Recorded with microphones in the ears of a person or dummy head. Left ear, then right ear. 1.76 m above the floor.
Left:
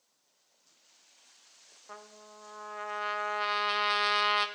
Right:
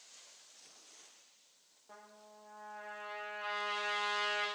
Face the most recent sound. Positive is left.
turn(degrees=60)  # may be behind; listen again after turning